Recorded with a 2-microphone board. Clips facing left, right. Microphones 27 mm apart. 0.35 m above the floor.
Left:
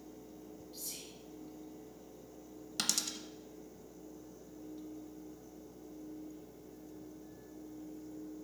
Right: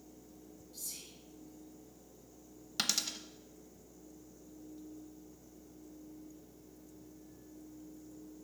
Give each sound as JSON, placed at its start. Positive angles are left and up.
{"t": 0.7, "sound": "whispering", "side_deg": 40, "distance_m": 1.9}
{"t": 2.8, "sound": "a dropped coin", "side_deg": -15, "distance_m": 0.5}